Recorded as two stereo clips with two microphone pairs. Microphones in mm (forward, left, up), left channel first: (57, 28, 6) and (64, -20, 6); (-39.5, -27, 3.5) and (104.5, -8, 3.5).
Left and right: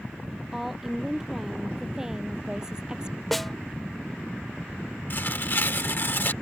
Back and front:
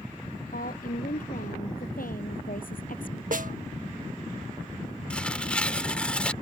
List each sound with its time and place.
0.5 s a woman speaking: 170° right; by 3.2 s 155° right
3.3 s a snare drum: 10° left
5.1 s tearing paper: 105° left